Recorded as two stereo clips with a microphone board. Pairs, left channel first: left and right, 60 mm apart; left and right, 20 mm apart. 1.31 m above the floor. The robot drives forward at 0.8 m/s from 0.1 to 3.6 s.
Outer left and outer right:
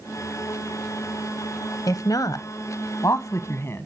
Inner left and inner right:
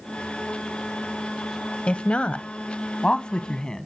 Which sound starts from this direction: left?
A woman speaking, at 1.9 s.